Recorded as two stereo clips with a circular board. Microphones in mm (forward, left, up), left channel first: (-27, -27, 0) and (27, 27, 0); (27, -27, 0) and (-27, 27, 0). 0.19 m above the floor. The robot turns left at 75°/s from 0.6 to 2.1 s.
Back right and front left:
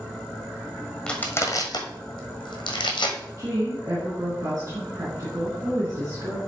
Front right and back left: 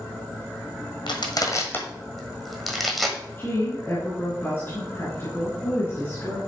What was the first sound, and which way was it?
Crushing, 55° right.